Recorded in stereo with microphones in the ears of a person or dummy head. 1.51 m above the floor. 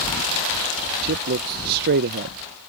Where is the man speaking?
55° right (ahead or behind).